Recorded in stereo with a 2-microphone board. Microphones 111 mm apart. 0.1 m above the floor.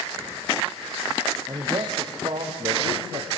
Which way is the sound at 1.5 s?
40° right (ahead or behind).